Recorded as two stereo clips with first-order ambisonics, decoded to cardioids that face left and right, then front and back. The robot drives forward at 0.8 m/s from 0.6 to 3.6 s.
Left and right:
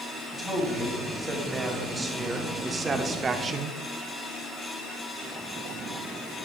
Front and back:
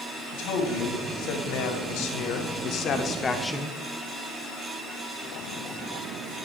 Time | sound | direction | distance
0.3 | a man speaking | 5° right | 2.5 m